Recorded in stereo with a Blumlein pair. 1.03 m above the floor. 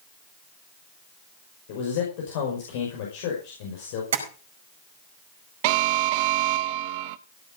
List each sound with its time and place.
1.7 s a man speaking: 50° left, 5 m
4.1 s tapping: 60° right, 5 m
5.6 s an alarm: 50° right, 0.8 m